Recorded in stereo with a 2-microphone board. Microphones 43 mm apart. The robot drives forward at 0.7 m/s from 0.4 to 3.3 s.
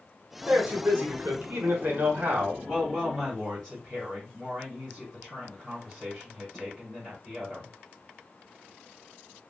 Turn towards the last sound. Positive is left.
turn(degrees=5)  # may be behind; listen again after turning